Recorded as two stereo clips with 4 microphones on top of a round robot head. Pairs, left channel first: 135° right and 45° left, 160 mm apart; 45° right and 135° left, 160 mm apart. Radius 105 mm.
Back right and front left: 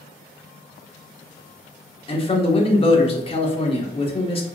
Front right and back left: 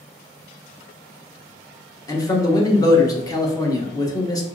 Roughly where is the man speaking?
Right.